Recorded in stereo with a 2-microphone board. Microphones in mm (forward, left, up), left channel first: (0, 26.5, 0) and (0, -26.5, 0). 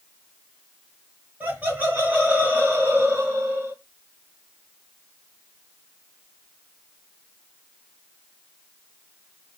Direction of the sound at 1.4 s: 25° right (ahead or behind).